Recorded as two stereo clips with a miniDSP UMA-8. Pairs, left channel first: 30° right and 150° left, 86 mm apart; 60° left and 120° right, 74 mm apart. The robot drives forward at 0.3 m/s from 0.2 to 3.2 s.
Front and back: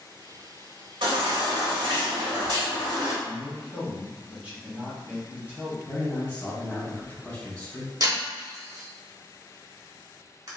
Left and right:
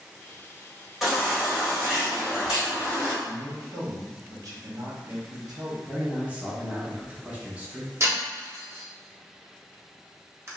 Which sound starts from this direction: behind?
Breaking glass, at 8.0 s.